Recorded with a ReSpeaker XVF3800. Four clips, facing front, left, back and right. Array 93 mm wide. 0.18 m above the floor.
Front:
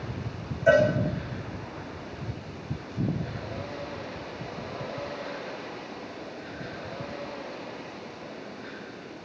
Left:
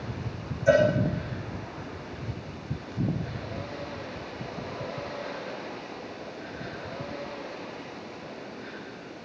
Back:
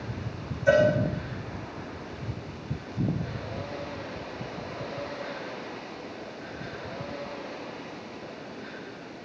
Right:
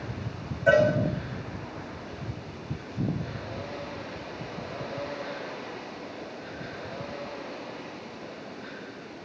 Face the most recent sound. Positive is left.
turn(degrees=-35)